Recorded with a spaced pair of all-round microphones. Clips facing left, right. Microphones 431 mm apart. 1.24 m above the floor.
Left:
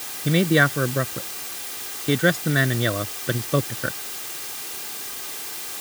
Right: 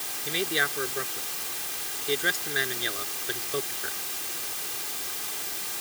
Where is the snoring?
No snoring in this recording.